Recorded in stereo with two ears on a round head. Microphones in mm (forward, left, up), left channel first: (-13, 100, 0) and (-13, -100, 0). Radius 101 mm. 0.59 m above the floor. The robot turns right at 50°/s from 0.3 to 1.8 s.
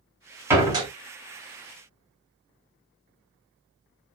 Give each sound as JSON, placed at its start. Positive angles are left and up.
{"t": 0.5, "sound": "a door slam", "side_deg": -10, "distance_m": 0.9}